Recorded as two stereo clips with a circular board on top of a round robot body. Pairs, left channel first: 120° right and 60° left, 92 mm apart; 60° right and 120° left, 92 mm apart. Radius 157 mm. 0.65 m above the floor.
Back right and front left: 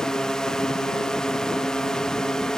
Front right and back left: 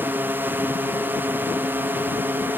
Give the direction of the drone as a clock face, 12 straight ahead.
7 o'clock.